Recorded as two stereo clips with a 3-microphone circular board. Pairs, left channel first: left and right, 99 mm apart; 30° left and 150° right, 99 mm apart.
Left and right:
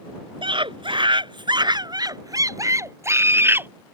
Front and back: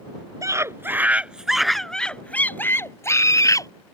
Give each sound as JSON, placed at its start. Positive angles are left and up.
{"t": 0.4, "sound": "a scream", "azimuth_deg": -100}